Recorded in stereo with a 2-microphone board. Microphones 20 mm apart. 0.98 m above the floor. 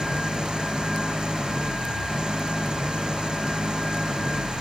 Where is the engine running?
45° right (ahead or behind).